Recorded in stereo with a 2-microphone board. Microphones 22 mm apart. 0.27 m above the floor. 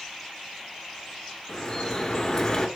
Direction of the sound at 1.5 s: 30° left (ahead or behind).